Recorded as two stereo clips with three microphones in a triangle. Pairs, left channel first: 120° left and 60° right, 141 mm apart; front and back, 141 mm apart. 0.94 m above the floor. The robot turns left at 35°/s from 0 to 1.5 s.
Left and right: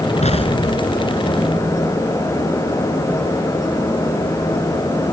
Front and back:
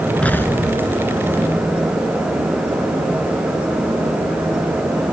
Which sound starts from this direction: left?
An explosion, at 0.2 s.